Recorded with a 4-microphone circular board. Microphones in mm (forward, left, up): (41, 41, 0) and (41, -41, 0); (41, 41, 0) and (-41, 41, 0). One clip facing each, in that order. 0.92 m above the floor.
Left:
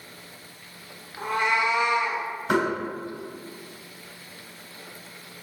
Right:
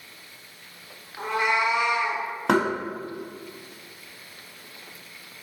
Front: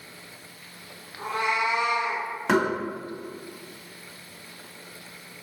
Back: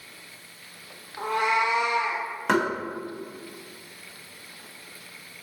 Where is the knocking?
90° right, 1.2 m.